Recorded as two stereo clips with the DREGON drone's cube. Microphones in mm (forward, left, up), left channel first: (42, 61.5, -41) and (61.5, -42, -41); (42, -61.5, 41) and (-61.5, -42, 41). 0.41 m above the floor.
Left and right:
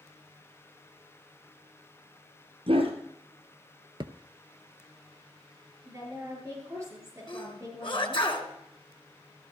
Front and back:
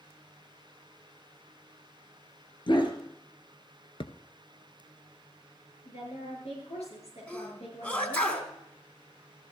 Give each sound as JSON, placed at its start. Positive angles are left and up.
{"t": 2.7, "sound": "a dog barking", "azimuth_deg": -50, "distance_m": 2.5}
{"t": 4.0, "sound": "a thud", "azimuth_deg": -40, "distance_m": 0.8}
{"t": 5.8, "sound": "a woman speaking", "azimuth_deg": -20, "distance_m": 7.0}
{"t": 7.3, "sound": "a sneeze", "azimuth_deg": 65, "distance_m": 3.5}